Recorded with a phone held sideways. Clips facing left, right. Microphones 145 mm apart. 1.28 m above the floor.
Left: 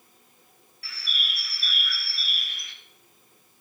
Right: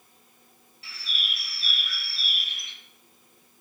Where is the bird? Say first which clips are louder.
Left 1 dB; 20° right (ahead or behind), 0.9 m.